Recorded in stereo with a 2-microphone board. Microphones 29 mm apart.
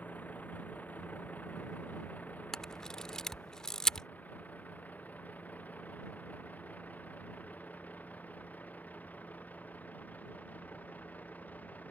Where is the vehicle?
80° left.